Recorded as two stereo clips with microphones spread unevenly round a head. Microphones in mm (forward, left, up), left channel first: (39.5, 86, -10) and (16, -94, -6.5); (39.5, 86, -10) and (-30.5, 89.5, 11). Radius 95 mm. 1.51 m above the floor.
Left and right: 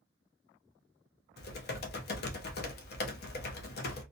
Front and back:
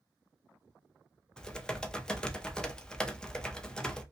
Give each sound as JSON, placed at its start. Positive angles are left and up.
{"t": 1.4, "sound": "typing on a keyboard", "azimuth_deg": 90, "distance_m": 0.5}